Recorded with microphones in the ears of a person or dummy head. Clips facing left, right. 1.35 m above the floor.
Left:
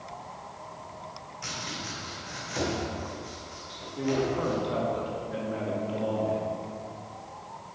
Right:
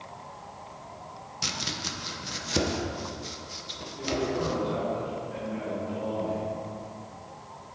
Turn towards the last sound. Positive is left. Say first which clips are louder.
# left 2 dB
turn(degrees=55)  # may be behind; listen again after turning